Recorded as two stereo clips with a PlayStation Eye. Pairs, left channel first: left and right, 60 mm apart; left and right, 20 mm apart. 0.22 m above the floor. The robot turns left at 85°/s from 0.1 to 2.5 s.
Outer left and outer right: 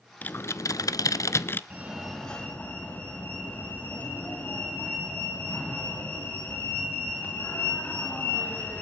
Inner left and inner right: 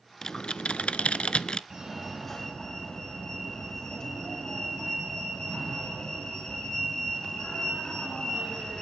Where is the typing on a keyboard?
155° left, 0.6 m; by 1.6 s 35° left, 0.6 m.